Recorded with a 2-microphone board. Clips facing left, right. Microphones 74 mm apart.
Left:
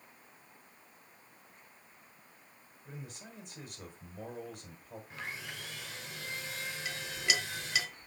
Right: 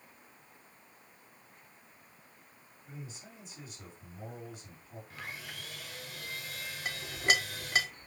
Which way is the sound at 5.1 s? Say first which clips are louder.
Left 2 dB; 30° left (ahead or behind).